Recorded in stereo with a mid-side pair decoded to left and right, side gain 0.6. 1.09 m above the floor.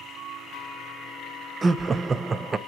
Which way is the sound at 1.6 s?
25° right.